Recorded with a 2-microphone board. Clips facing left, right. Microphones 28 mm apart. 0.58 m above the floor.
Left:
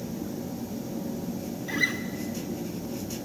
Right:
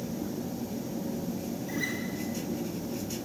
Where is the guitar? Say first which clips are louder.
Left 7 dB; 45° left (ahead or behind), 1.5 m.